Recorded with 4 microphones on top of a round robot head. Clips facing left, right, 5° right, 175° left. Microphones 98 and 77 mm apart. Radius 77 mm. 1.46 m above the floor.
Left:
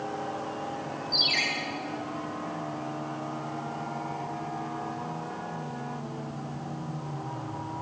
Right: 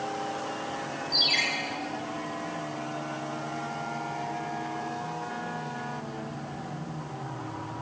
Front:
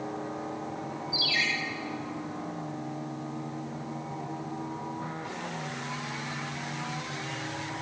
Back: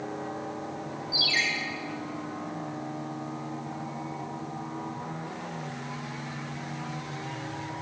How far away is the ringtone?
About 2.5 m.